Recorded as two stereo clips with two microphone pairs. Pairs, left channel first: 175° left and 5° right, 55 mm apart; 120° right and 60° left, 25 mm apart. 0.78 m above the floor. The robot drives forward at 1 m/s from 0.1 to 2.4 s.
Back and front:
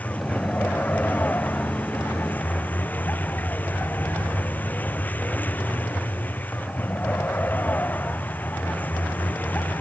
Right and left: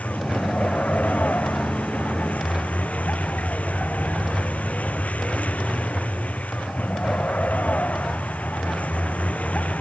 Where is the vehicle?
125° right.